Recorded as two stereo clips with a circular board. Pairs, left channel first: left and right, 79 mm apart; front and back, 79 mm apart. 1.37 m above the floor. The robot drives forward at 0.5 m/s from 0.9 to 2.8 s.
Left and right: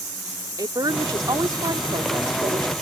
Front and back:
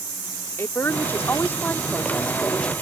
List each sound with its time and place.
0.6 s a woman speaking: 60° right; by 2.7 s 75° right